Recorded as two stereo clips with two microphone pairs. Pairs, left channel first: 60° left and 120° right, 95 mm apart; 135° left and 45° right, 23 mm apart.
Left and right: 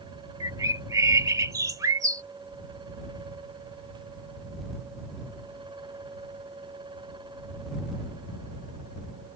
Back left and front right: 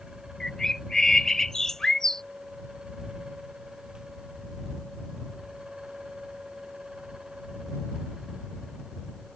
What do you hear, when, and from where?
0.4 s a bird: 165° right